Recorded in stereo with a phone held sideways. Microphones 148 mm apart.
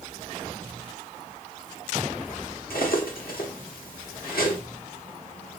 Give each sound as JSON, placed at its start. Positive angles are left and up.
{"t": 2.7, "sound": "cutlery clinking", "side_deg": 90, "distance_m": 1.0}